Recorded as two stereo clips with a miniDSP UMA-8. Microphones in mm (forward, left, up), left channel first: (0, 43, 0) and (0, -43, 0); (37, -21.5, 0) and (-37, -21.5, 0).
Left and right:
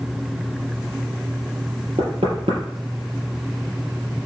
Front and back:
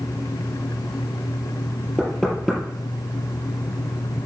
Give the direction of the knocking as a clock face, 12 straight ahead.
3 o'clock.